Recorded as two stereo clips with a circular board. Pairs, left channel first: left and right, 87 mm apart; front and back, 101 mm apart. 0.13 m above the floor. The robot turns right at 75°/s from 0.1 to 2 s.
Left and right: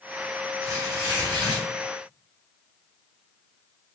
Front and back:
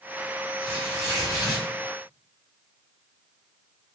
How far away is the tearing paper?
About 1.9 m.